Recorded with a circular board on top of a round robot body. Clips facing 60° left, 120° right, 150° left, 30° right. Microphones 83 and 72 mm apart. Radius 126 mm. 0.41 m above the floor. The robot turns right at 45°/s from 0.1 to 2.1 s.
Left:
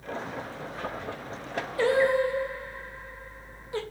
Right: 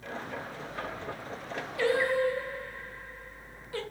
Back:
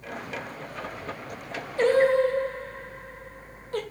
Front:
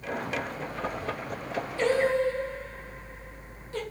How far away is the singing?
About 3 m.